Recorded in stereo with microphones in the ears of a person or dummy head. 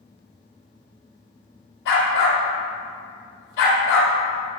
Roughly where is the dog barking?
Left.